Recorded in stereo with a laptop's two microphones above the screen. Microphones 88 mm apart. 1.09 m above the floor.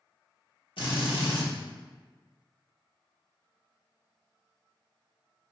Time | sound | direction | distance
0.8 | a drill | 75° left (ahead or behind) | 1.4 m